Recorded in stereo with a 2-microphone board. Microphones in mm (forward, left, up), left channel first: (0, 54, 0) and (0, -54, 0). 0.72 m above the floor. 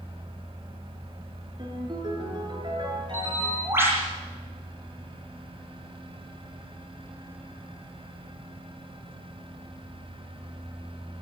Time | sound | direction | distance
1.6 | a ringtone | 45° right (ahead or behind) | 9 m
3.1 | a bird | 20° right (ahead or behind) | 10 m